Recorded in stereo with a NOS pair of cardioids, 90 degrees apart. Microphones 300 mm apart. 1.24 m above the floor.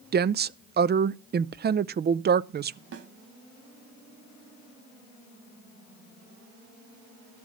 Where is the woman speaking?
35° right, 0.6 m.